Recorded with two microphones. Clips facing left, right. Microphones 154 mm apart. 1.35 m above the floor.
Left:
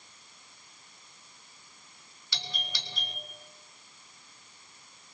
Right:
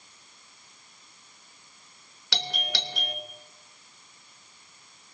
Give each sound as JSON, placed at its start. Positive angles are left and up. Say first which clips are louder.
{"t": 2.3, "sound": "a doorbell", "louder": "right 8 dB", "side_deg": -80, "distance_m": 3.0}